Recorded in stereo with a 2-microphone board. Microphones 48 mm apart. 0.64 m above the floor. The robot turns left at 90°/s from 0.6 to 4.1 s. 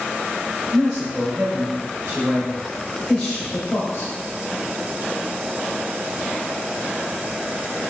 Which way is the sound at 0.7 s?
Straight ahead.